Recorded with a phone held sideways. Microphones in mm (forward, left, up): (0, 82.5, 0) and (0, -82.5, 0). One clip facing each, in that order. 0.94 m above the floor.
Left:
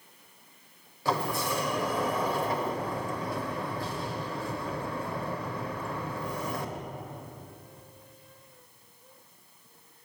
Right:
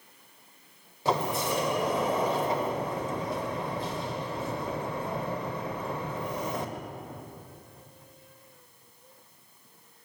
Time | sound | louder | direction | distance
1.1 | a sliding door | right 2 dB | 20° right (ahead or behind) | 0.7 m